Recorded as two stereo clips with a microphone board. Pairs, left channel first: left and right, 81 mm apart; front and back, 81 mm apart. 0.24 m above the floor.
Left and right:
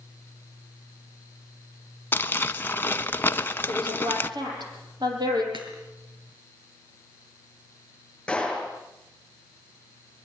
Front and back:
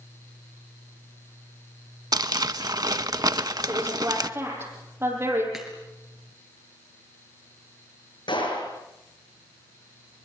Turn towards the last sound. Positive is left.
turn(degrees=10)